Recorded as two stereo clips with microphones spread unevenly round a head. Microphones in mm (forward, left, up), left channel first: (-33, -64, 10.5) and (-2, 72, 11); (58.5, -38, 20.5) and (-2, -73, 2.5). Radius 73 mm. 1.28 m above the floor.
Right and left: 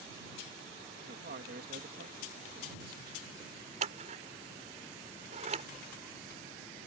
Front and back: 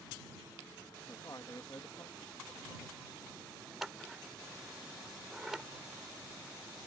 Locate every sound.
1.0 s a man speaking: 95° left
3.8 s scissors: 120° left